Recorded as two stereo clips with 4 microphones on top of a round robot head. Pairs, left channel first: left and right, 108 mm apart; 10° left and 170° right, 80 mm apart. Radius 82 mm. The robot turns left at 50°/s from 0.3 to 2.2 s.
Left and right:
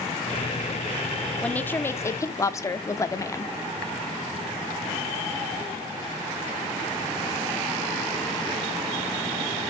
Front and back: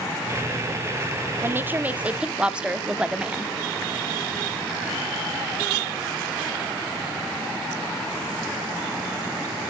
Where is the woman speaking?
160° left, 1.0 m; by 3.5 s 120° left, 1.0 m.